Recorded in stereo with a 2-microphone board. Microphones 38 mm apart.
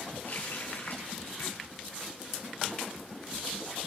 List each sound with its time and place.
0.2 s a running tap: 65° left (ahead or behind), 7 m